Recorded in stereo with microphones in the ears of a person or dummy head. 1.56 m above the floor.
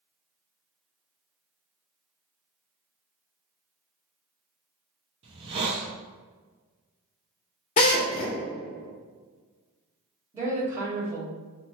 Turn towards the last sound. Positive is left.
turn(degrees=-15)  # may be behind; listen again after turning